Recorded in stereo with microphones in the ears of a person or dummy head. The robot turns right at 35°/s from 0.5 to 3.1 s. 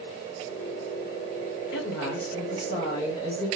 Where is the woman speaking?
105° left, 1.8 m; by 3.5 s 155° left, 1.8 m.